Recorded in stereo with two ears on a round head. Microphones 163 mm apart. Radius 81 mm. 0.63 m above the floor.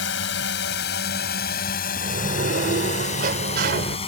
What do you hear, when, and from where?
0.0 s a drone: 70° left (ahead or behind); by 4.1 s 30° left (ahead or behind)
2.0 s a sliding door: 55° right (ahead or behind)